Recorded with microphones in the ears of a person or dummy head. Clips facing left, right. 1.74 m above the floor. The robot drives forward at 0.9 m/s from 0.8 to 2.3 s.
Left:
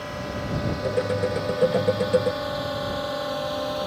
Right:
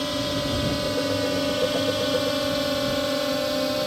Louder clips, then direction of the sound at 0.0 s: Right 6 dB; 50° right (ahead or behind).